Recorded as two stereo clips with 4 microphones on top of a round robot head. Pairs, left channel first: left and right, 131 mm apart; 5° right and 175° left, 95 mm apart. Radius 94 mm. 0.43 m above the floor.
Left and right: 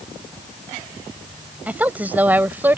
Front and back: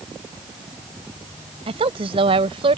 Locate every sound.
1.7 s a woman speaking: 165° right